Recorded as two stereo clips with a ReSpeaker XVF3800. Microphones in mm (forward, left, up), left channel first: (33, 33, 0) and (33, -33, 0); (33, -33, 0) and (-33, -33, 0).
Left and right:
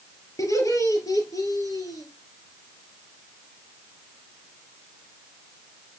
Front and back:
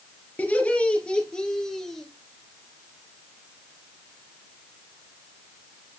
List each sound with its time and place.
0.4 s laughter: 65° left, 3.5 m; by 2.1 s 85° left, 3.5 m